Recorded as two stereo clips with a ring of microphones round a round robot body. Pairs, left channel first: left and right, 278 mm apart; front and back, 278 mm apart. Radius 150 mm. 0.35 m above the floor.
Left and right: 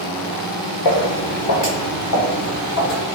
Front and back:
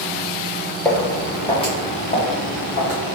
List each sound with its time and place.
0.8 s footsteps: 85° left, 1.6 m; by 3.0 s 55° left, 2 m